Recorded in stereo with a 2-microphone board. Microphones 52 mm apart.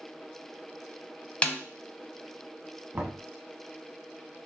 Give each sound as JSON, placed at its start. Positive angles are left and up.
{"t": 1.4, "sound": "a snare drum", "side_deg": 25, "distance_m": 0.6}
{"t": 2.9, "sound": "knocking", "side_deg": -30, "distance_m": 1.0}